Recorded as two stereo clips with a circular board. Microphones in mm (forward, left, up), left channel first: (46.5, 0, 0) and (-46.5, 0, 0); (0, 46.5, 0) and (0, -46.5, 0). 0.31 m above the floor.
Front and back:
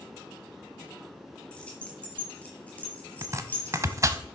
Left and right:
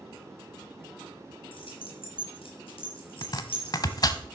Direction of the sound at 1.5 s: 75° left.